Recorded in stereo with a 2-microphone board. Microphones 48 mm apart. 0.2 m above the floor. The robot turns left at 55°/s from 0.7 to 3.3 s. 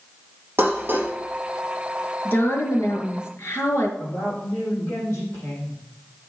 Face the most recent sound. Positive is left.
turn(degrees=65)  # may be behind; listen again after turning